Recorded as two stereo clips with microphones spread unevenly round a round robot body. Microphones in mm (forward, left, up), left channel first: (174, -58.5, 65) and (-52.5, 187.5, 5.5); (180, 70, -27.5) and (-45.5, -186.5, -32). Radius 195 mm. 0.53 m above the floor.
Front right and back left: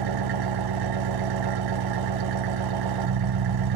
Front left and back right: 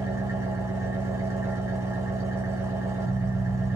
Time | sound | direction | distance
0.0 | an engine running | 145° left | 0.8 m